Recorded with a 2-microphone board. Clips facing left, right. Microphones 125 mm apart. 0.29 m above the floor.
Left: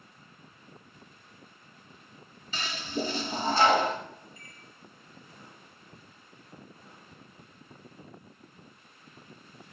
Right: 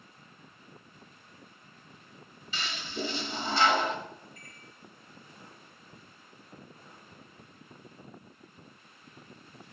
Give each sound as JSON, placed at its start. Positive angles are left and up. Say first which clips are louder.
{"t": 2.5, "sound": "a toilet flushing", "louder": "left 4 dB", "side_deg": 40, "distance_m": 0.7}
{"t": 4.4, "sound": "a microwave", "louder": "even", "side_deg": -55, "distance_m": 1.8}